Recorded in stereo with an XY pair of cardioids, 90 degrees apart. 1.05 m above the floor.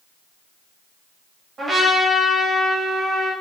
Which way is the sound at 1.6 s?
55° right.